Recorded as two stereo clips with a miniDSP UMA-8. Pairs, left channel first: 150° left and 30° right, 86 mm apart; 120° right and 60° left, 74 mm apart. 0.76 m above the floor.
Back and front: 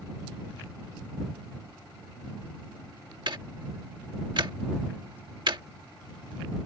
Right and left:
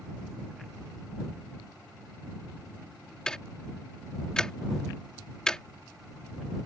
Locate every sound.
3.3 s ticking: 40° right